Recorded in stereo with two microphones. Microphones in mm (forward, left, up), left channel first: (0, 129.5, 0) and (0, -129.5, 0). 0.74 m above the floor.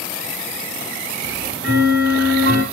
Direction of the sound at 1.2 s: 60° right (ahead or behind).